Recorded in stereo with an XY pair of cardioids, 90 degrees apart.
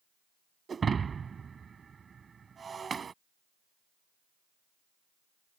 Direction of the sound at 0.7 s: 45° right.